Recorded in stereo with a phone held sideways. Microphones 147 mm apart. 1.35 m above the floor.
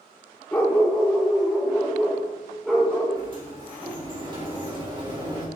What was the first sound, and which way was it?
A dog barking, 15° left (ahead or behind).